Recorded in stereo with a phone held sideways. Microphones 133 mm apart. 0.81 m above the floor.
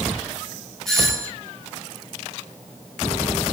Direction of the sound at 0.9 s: 5° left (ahead or behind).